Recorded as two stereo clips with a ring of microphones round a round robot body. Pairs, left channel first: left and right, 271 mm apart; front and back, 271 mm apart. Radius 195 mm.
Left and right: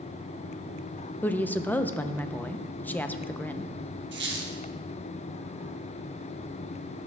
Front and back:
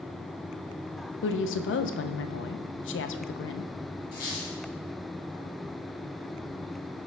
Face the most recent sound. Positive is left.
turn(degrees=-50)